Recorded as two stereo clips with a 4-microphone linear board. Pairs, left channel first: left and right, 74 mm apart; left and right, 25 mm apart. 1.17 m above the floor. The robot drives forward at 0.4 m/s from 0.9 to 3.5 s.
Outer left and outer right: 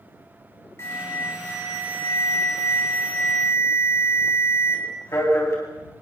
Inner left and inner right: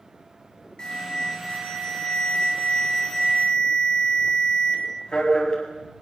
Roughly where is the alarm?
Left.